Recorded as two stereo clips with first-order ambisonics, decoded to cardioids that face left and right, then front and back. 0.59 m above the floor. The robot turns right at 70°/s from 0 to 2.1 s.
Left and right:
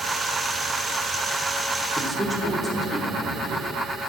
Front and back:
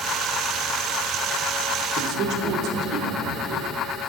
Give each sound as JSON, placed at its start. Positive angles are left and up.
{"t": 2.0, "sound": "a man speaking", "azimuth_deg": -170, "distance_m": 1.0}